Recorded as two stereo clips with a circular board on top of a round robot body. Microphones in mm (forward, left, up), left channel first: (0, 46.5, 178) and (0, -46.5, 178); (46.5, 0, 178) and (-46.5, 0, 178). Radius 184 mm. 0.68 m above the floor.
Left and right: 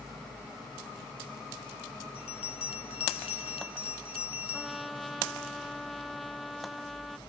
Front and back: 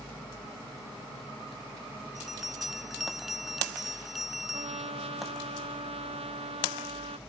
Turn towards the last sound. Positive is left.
turn(degrees=180)